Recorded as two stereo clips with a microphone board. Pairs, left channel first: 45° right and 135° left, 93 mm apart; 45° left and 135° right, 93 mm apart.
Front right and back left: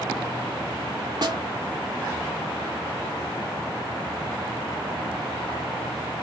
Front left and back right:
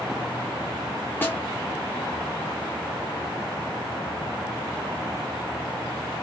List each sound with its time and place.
1.2 s a snare drum: 110° left, 1.0 m